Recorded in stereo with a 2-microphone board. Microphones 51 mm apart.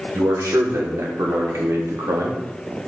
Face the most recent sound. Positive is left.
turn(degrees=-80)